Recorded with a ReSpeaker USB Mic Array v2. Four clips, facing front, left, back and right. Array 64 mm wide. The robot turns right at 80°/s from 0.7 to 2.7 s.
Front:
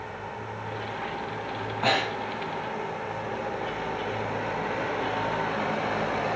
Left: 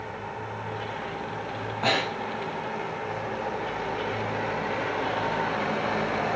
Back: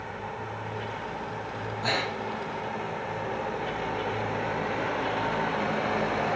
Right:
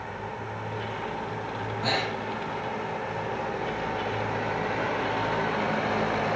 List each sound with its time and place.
1.8 s breathing: 25° left, 4.5 m; by 2.4 s 70° left, 4.5 m